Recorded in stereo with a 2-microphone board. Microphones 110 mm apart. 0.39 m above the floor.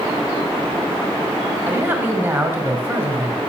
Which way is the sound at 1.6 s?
20° right (ahead or behind).